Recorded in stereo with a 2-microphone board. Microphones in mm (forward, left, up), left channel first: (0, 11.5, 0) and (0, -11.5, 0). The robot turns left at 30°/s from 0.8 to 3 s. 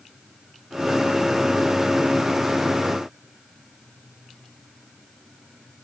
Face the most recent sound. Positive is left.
No sound to turn to.